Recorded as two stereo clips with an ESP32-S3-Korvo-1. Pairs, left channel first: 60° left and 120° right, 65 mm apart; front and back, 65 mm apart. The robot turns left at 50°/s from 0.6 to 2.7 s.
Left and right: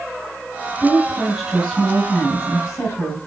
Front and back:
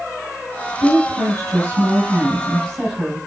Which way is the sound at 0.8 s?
Straight behind.